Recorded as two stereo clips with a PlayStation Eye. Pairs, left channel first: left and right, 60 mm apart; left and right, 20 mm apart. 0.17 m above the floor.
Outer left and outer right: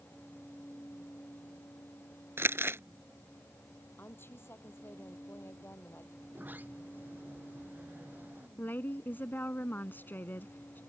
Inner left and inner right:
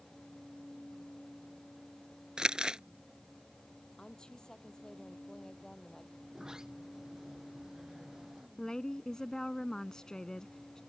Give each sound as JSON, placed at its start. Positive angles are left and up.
{"t": 2.4, "sound": "crumpling", "side_deg": -40}
{"t": 4.0, "sound": "a woman speaking", "side_deg": 40}
{"t": 6.2, "sound": "a sliding door", "side_deg": -30}
{"t": 8.6, "sound": "a woman speaking", "side_deg": 35}